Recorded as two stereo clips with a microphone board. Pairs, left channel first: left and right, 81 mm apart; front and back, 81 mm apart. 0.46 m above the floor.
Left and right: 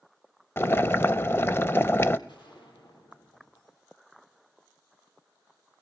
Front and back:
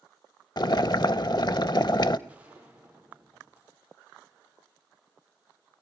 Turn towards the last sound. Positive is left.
turn(degrees=105)